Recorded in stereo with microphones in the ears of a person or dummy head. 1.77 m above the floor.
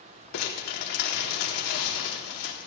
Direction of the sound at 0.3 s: 55° left (ahead or behind).